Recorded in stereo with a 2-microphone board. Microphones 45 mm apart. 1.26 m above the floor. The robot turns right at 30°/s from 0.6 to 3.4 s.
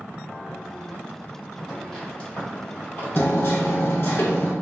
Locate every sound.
1.7 s footsteps: centre (ahead or behind), 1.9 m; by 3.8 s 25° left (ahead or behind), 1.8 m
3.1 s hammering: 45° left (ahead or behind), 0.8 m; by 4.5 s 50° left (ahead or behind), 0.8 m